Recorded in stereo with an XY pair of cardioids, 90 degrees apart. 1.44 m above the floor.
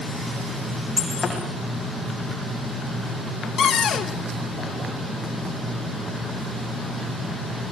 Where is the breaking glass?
45° left, 7.5 m.